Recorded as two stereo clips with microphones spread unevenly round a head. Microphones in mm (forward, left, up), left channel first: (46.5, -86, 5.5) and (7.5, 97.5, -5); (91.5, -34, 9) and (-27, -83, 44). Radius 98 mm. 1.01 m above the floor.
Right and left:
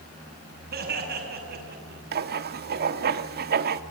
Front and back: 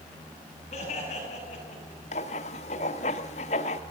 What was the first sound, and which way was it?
Laughter, 70° left.